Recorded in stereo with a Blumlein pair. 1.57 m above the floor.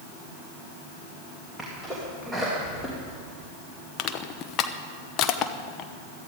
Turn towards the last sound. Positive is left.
turn(degrees=35)